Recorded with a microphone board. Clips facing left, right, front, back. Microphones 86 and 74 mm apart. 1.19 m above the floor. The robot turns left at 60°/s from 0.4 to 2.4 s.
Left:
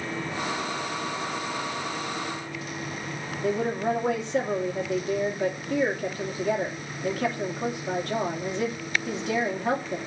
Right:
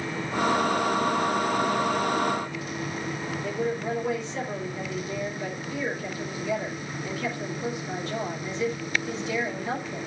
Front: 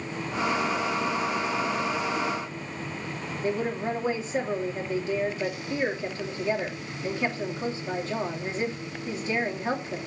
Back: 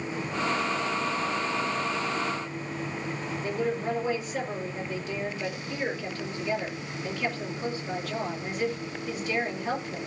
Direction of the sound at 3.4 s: 60° left.